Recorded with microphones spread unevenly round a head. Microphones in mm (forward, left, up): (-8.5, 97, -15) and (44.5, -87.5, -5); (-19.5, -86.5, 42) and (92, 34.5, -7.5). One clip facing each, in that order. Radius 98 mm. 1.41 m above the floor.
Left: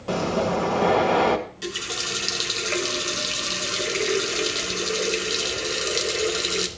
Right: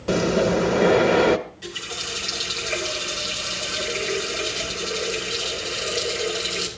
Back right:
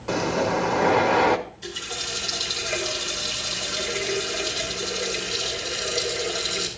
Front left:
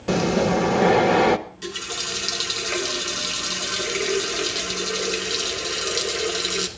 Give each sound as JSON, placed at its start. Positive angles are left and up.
{"t": 0.1, "sound": "breathing", "azimuth_deg": -10, "distance_m": 1.3}
{"t": 1.5, "sound": "a running tap", "azimuth_deg": 80, "distance_m": 2.5}